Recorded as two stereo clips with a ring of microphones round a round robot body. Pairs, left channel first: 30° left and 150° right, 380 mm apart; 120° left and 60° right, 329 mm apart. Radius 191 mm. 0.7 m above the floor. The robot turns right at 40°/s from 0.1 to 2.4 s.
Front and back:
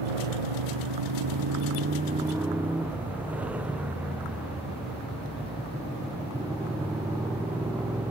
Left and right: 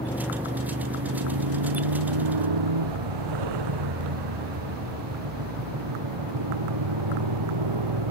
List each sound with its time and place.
0.0 s a motorcycle: 155° right; by 8.1 s 65° right